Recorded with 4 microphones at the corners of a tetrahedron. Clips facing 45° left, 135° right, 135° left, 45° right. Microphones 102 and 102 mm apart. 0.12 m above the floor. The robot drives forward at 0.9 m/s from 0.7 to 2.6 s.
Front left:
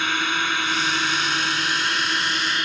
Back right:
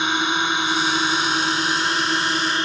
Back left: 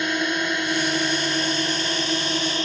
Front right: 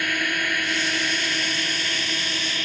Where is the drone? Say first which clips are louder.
Back right 3 dB, back left 3 dB; 175° left; by 2.6 s straight behind.